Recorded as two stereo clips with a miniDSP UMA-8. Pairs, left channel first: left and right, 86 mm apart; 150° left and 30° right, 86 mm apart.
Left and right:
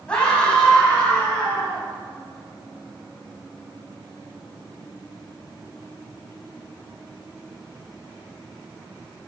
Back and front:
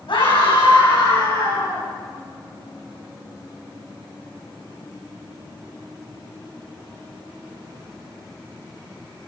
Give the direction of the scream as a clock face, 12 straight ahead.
6 o'clock.